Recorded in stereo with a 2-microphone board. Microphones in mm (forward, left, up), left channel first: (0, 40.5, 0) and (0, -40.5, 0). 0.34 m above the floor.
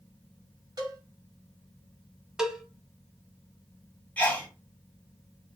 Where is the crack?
I don't hear a crack.